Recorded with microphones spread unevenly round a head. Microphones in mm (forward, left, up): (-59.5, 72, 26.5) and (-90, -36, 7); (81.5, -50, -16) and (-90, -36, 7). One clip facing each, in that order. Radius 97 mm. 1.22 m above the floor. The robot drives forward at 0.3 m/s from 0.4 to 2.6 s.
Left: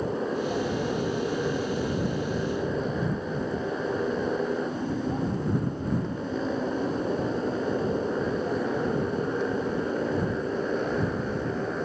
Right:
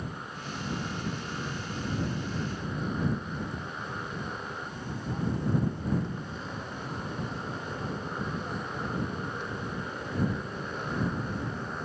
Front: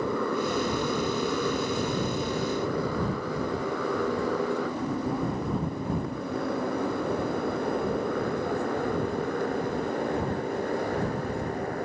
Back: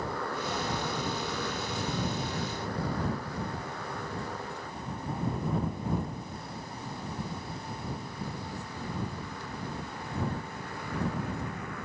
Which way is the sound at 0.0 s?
20° left.